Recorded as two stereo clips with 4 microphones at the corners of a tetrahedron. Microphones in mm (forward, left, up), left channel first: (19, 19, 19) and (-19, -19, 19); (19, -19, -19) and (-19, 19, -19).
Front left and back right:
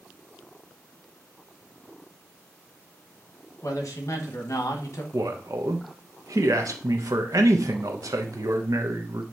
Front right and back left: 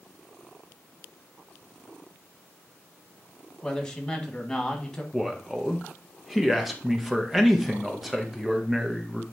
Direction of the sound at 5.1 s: 135° right.